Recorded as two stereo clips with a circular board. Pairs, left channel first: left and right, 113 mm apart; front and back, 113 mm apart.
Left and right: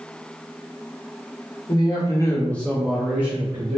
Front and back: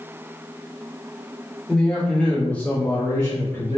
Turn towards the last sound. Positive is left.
turn(degrees=-60)